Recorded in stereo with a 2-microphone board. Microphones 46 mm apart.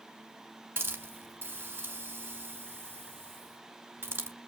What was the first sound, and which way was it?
A hiss, 55° right (ahead or behind).